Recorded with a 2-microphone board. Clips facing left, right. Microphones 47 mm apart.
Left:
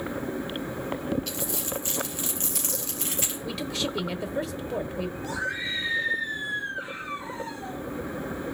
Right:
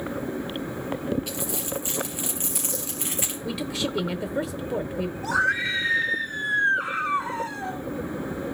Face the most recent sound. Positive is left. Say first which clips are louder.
# right 11 dB
turn(degrees=-85)